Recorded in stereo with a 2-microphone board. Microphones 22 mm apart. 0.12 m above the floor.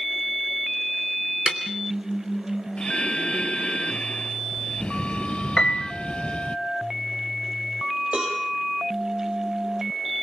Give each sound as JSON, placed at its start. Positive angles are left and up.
{"t": 1.5, "sound": "a snare drum", "side_deg": -45, "distance_m": 3.0}
{"t": 2.8, "sound": "breathing", "side_deg": 70, "distance_m": 0.7}
{"t": 5.6, "sound": "a piano", "side_deg": 35, "distance_m": 3.0}
{"t": 8.1, "sound": "a cowbell", "side_deg": -50, "distance_m": 6.5}